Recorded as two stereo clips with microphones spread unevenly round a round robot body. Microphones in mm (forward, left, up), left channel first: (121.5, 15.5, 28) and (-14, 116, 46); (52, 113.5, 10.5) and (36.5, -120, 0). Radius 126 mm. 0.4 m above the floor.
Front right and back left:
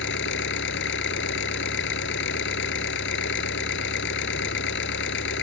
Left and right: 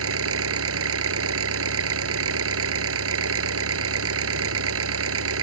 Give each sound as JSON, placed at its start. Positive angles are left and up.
{"t": 0.0, "sound": "an engine running", "azimuth_deg": -65}